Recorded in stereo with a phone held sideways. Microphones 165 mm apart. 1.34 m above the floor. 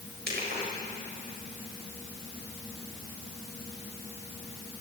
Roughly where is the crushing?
Right.